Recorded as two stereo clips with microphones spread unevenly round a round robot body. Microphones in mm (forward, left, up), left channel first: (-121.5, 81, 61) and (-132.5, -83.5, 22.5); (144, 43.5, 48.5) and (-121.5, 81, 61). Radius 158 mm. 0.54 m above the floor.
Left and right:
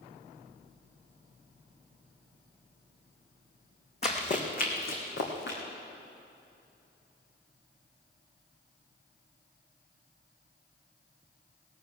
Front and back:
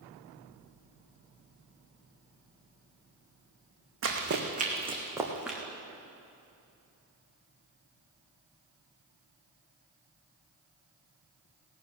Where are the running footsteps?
130° left, 2.5 m; by 5.6 s 80° left, 3 m.